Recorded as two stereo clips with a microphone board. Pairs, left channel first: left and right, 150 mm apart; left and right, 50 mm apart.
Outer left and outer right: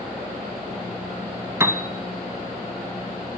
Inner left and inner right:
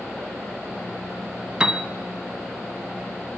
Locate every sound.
1.6 s a piano: 15° right (ahead or behind), 1.1 m